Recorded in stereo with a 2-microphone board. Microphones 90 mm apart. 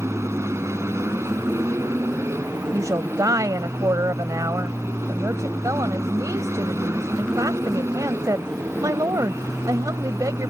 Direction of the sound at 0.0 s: 30° right (ahead or behind).